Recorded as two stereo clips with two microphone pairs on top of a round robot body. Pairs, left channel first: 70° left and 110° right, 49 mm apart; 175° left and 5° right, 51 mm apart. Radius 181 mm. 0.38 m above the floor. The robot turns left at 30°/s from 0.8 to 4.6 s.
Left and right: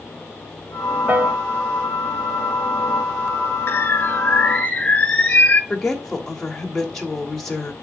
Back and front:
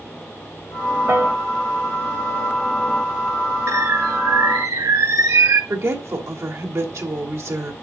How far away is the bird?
About 1.8 m.